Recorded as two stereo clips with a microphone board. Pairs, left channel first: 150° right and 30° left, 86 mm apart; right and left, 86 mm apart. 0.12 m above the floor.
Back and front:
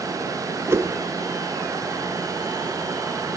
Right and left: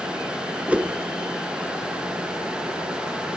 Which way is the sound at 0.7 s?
30° left.